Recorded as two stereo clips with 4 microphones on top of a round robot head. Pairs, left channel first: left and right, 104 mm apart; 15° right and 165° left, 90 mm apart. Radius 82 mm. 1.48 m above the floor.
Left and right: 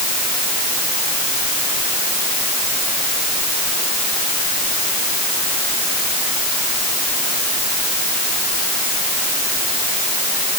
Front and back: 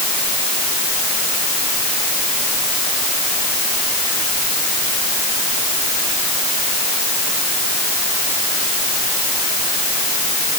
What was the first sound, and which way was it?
Only background noise.